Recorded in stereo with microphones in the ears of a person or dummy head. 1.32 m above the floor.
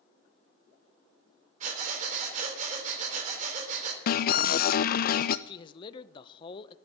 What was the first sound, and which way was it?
Breathing, 45° right (ahead or behind).